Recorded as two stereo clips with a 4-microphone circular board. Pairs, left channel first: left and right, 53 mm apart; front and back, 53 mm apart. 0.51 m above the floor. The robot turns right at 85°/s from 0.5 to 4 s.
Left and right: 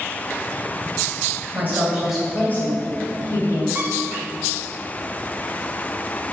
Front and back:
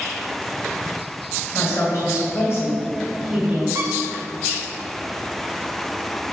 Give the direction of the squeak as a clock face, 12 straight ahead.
5 o'clock.